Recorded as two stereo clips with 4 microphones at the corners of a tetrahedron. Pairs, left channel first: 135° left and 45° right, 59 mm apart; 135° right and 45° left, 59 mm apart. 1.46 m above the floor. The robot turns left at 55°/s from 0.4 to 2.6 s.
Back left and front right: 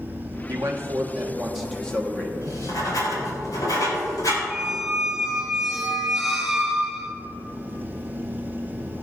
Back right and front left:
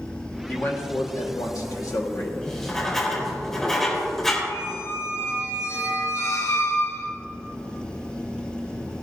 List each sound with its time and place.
0.5 s a man speaking: 70° right, 1.5 m; by 2.3 s 170° right, 1.5 m
2.4 s writing: 150° left, 4 m; by 4.4 s 140° left, 4 m
4.5 s a squeak: 130° right, 3 m